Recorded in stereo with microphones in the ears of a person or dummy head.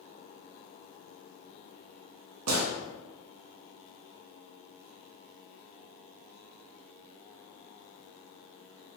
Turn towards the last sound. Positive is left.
turn(degrees=-75)  # may be behind; listen again after turning